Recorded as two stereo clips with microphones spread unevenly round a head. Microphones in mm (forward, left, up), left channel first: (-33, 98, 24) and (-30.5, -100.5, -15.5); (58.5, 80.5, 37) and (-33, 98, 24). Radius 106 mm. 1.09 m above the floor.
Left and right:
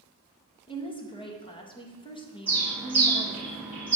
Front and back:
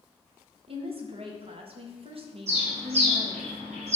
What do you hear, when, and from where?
0.7 s a woman speaking: 160° left, 1.4 m
2.5 s a bird: 175° right, 3 m